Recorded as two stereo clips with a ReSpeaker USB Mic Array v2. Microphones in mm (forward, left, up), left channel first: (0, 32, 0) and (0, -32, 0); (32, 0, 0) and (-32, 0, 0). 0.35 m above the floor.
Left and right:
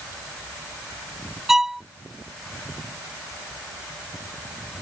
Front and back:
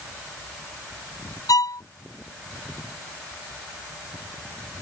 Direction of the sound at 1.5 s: 5° right.